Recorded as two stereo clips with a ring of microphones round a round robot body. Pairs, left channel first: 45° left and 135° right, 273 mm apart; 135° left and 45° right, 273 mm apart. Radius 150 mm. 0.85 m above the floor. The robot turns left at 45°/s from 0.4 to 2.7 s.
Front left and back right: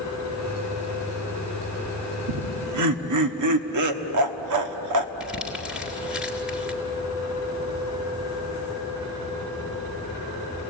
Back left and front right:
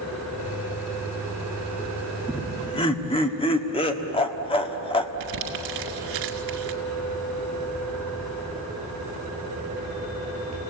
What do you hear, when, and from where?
2.3 s laughter: 135° right, 1.5 m; by 5.1 s 155° right, 1.5 m
5.2 s crumpling: 50° right, 2.0 m